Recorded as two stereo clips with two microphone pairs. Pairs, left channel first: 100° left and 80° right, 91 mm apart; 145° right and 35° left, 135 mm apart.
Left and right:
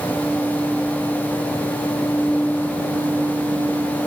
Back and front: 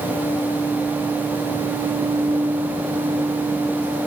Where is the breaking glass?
I don't hear breaking glass.